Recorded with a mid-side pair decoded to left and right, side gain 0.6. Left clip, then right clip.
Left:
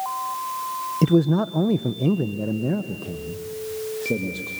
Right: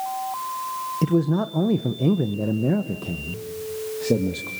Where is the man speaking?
20° left, 0.8 m; by 4.5 s 30° right, 2.5 m.